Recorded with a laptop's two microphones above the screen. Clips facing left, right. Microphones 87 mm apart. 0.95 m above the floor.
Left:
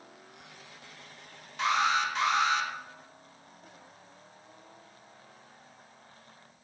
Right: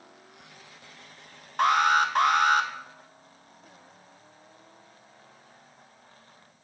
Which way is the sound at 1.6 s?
55° right (ahead or behind).